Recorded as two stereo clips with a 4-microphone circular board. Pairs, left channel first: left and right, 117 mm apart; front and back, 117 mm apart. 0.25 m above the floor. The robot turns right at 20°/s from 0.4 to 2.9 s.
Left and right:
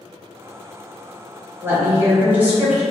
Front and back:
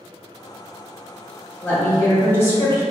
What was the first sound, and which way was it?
A woman speaking, 50° right.